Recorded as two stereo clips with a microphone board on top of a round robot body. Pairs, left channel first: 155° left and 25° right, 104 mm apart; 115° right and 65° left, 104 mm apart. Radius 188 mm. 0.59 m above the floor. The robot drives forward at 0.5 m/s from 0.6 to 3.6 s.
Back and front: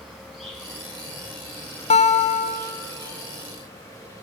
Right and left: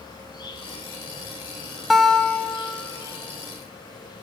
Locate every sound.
0.0 s an insect: 105° right, 2 m; by 4.2 s 145° right, 3 m
1.9 s a guitar: 160° left, 0.6 m; by 2.9 s 170° left, 1.0 m